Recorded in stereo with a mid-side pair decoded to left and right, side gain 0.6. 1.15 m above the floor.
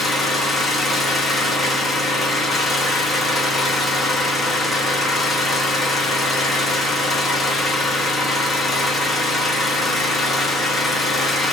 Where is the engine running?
25° left, 0.9 m.